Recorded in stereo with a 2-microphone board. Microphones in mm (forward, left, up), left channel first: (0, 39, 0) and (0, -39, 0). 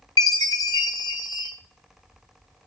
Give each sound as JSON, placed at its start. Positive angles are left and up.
{"t": 0.2, "sound": "a chime", "side_deg": 55, "distance_m": 1.0}